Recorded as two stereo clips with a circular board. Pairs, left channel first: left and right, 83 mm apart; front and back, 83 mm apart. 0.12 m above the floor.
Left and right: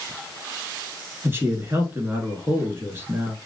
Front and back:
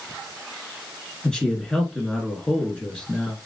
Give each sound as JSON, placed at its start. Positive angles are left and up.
{"t": 1.2, "sound": "a man speaking", "azimuth_deg": -65, "distance_m": 1.2}